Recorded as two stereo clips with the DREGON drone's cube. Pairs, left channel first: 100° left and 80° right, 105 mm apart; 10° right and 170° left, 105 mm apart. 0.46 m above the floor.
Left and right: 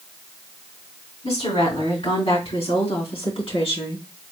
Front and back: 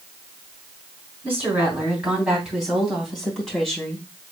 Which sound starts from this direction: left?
A woman speaking, at 1.2 s.